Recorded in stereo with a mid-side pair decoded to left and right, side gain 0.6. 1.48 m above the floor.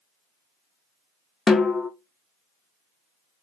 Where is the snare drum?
25° left, 0.6 m.